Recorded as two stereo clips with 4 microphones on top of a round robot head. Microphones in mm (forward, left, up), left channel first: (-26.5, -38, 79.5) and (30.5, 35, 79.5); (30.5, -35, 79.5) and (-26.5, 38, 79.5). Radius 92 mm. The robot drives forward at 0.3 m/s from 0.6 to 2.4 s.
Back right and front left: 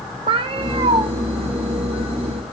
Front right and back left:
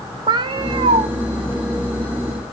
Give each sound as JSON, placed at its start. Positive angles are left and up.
{"t": 0.3, "sound": "a cat meowing", "azimuth_deg": 85, "distance_m": 0.5}